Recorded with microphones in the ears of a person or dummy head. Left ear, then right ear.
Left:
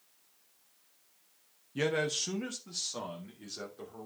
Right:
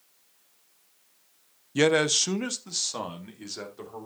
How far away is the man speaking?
About 0.6 m.